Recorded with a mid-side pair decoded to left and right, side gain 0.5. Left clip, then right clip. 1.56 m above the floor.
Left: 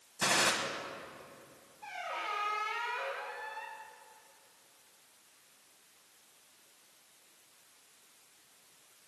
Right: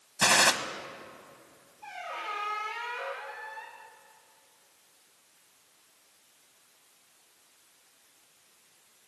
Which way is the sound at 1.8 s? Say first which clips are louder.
Right 1 dB; 10° left.